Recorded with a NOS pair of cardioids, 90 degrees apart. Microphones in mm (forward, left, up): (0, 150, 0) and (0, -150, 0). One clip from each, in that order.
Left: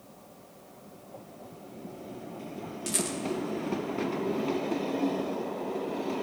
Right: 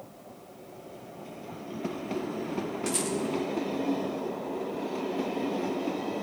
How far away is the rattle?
About 1.3 m.